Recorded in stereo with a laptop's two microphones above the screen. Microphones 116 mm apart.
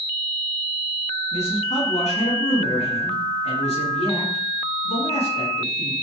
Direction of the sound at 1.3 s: 80° left.